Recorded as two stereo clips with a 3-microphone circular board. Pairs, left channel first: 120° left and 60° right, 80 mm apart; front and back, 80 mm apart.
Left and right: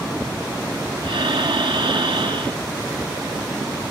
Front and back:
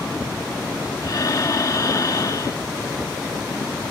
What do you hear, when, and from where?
1.0 s breathing: 45° right